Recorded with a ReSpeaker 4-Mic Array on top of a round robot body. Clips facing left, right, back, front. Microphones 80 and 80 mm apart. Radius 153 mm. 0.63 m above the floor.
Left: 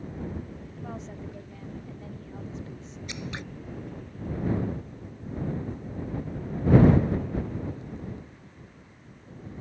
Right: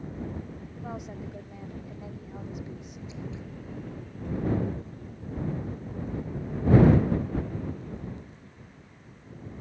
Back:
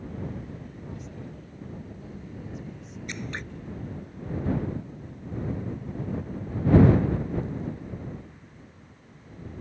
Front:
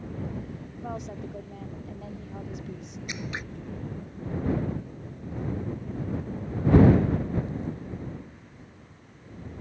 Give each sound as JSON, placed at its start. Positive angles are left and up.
{"t": 0.8, "sound": "a woman speaking", "azimuth_deg": -15}
{"t": 3.1, "sound": "scissors", "azimuth_deg": 85}